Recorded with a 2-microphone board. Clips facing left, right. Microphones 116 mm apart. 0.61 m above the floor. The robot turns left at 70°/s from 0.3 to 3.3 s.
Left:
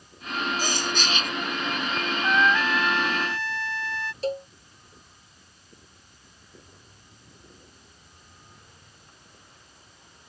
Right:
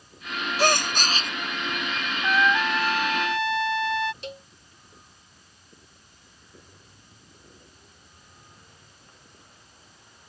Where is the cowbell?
35° left (ahead or behind).